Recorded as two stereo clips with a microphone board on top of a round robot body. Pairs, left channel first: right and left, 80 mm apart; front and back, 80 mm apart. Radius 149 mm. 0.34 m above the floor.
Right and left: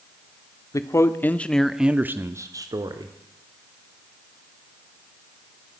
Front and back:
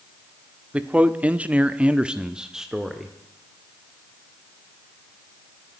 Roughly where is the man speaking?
Right.